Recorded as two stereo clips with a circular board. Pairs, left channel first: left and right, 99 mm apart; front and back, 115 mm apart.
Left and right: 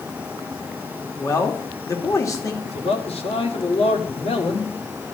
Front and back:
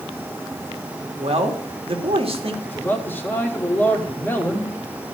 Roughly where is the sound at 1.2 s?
Behind left.